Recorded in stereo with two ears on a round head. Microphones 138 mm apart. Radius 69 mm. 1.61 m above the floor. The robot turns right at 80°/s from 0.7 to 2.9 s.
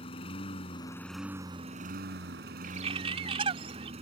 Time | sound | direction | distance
0.0 | a lawn mower | 145° left | ?
2.6 | a bird | 55° right (ahead or behind) | ?